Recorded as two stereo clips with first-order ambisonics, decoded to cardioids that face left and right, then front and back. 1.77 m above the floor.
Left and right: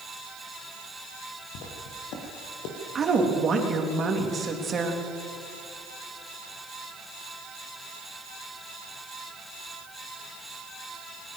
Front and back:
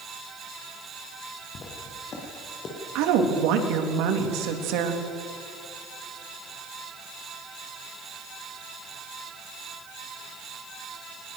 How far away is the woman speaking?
About 3 m.